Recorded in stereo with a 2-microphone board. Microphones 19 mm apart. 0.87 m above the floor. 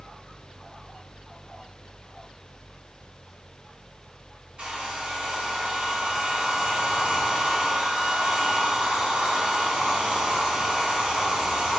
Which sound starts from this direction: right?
A hair dryer, at 4.6 s.